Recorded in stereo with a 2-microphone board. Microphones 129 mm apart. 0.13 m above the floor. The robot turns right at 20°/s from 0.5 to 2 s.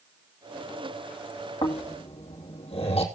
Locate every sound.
1.6 s snoring: 45° left (ahead or behind), 3 m; by 3.0 s 55° left (ahead or behind), 3 m